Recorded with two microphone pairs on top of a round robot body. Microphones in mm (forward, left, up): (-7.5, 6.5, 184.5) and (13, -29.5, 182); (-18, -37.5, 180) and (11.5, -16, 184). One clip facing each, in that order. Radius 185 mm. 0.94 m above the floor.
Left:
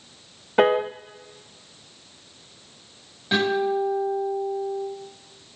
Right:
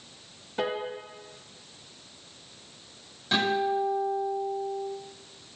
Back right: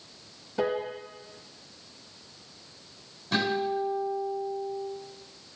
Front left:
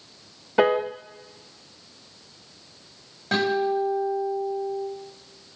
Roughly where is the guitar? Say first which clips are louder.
Left 3 dB, front left 5 dB; ahead left.